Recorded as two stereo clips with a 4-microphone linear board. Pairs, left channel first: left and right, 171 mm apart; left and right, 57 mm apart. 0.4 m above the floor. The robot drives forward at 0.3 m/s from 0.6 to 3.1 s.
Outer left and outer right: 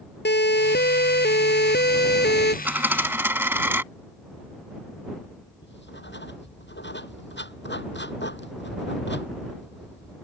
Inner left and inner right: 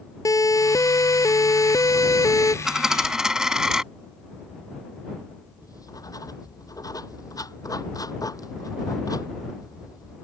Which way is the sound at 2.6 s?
10° right (ahead or behind).